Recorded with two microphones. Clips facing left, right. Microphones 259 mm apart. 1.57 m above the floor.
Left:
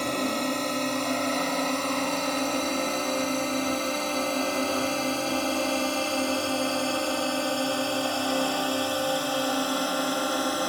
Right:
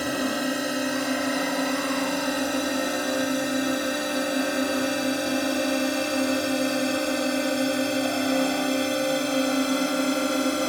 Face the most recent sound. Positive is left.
turn(degrees=-25)  # may be behind; listen again after turning